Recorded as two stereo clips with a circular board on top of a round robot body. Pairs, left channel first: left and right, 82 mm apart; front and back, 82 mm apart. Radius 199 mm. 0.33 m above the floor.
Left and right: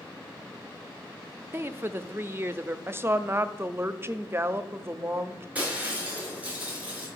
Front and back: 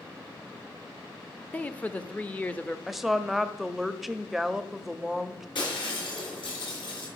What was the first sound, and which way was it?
A man speaking, 60° right.